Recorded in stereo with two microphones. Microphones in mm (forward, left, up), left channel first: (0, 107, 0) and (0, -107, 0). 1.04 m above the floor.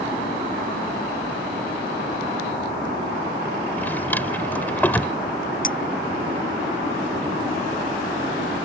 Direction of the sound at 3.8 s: 10° left (ahead or behind).